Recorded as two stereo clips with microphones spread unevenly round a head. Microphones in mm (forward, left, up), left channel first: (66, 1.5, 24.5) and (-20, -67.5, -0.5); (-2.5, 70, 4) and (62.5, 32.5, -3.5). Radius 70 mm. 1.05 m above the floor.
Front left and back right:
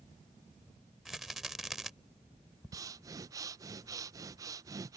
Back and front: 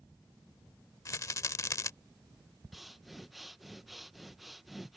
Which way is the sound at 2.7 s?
115° right.